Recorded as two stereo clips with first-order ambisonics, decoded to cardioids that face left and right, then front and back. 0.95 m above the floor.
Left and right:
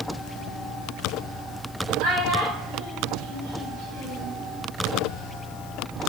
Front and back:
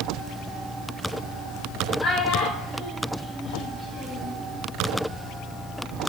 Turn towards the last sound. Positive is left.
turn(degrees=-65)